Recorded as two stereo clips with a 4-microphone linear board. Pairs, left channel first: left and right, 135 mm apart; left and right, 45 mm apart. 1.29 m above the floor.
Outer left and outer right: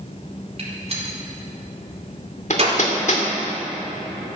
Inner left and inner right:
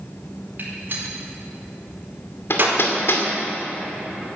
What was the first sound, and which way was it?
A gunshot, 50° right (ahead or behind).